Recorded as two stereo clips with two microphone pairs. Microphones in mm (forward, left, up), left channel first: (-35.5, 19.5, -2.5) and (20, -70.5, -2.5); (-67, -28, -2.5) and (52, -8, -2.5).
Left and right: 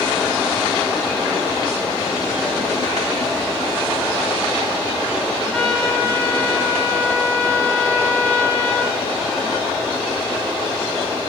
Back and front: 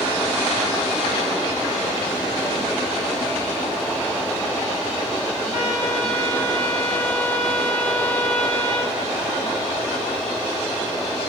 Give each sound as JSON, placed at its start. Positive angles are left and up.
{"t": 5.5, "sound": "a trumpet", "azimuth_deg": -160, "distance_m": 5.5}